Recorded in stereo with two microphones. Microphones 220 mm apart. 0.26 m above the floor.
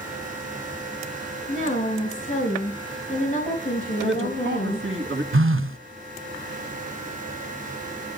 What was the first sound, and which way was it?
A woman speaking, 35° left (ahead or behind).